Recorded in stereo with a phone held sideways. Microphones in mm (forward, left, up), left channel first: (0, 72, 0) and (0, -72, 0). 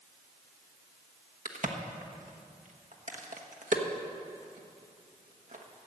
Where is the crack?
65° right (ahead or behind), 1.2 m.